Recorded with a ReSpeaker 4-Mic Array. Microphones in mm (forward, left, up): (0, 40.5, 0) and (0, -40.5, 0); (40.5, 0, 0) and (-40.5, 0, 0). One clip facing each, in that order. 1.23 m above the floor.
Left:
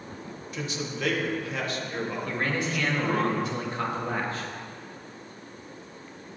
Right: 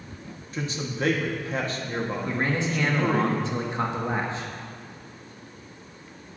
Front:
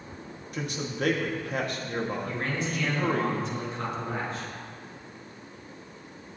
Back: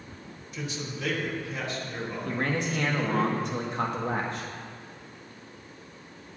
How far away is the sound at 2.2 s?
About 1.9 m.